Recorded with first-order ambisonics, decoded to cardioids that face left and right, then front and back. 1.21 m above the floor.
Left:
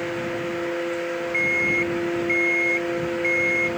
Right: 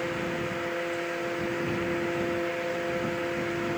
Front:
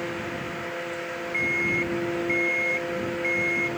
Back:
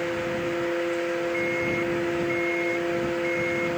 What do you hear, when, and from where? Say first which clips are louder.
1.3 s an alarm clock: left 10 dB, front 1 dB; 75° left